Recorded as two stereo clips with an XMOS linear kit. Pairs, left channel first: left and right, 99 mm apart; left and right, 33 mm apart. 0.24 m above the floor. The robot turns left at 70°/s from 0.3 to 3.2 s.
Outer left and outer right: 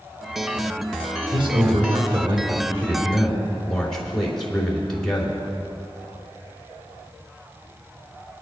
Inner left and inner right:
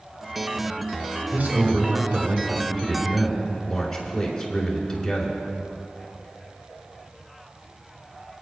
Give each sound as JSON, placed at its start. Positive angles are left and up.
{"t": 1.3, "sound": "a man speaking", "azimuth_deg": -55, "distance_m": 3.5}